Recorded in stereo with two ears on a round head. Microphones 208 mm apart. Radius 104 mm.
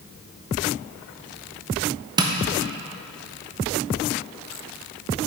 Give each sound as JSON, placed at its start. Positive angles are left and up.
{"t": 2.2, "sound": "tapping", "side_deg": -20, "distance_m": 0.6}